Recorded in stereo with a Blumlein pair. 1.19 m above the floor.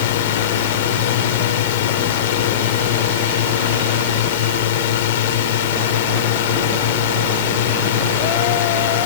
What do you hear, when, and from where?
0.0 s a drone: 55° left